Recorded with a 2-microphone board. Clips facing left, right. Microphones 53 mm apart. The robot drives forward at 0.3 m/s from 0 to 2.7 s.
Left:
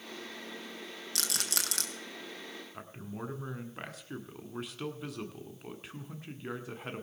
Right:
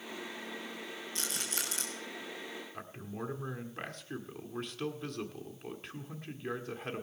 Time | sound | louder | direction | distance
1.1 | a rattle | left 4 dB | 80° left | 1.3 m
2.7 | a man speaking | even | 5° left (ahead or behind) | 1.5 m